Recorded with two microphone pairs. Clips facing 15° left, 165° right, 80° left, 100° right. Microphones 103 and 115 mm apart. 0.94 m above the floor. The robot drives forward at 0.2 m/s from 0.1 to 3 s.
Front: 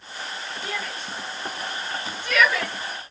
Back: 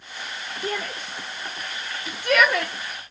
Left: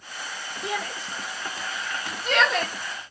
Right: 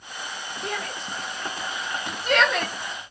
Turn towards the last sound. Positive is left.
turn(degrees=165)